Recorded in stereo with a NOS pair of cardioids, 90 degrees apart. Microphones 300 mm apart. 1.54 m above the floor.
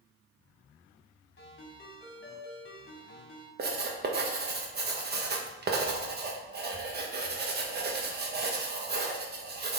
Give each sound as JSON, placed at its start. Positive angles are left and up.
{"t": 1.4, "sound": "a ringtone", "azimuth_deg": 40, "distance_m": 2.5}
{"t": 3.6, "sound": "writing", "azimuth_deg": -35, "distance_m": 1.3}